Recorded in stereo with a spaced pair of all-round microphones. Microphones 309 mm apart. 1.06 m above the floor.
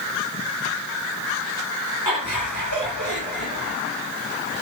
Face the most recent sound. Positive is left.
turn(degrees=70)  # may be behind; listen again after turning